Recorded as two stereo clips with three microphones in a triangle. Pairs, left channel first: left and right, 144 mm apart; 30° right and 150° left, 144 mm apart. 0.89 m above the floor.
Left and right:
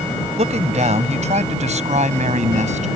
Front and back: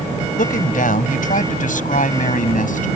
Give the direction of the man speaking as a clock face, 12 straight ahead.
2 o'clock.